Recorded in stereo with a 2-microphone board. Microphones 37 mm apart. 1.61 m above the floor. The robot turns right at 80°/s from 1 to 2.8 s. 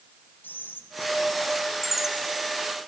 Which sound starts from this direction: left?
Whispering, at 0.4 s.